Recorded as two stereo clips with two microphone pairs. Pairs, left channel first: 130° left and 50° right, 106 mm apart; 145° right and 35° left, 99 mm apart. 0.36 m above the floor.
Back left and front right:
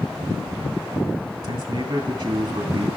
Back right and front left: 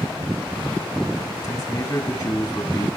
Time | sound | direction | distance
1.4 | a man speaking | 100° right | 3 m